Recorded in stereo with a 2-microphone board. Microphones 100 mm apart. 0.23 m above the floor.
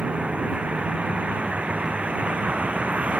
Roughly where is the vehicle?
Centre.